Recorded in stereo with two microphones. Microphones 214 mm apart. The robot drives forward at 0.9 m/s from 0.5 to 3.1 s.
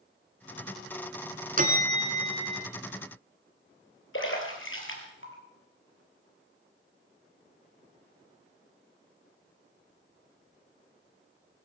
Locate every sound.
1.6 s a bell: 40° right (ahead or behind), 1.3 m; by 2.6 s 25° right (ahead or behind), 1.9 m
4.1 s a splash: 65° left (ahead or behind), 3 m